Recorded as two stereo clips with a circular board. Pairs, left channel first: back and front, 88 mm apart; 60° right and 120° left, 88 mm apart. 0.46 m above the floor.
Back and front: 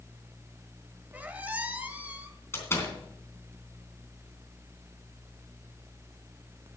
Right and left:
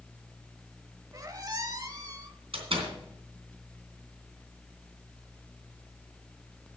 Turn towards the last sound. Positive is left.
turn(degrees=115)